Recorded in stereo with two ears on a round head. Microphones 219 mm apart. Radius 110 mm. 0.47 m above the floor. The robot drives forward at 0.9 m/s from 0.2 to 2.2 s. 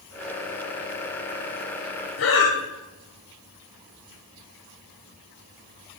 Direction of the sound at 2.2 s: 55° left (ahead or behind).